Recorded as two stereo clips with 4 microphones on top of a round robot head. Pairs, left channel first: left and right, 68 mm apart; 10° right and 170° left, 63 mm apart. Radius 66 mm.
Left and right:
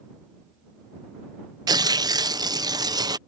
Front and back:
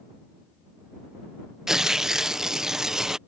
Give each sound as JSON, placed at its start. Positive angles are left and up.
{"t": 1.7, "sound": "tearing paper", "azimuth_deg": -105}